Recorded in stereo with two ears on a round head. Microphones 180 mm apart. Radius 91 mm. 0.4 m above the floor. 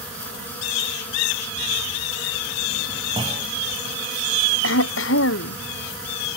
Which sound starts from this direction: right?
A clunk, at 3.2 s.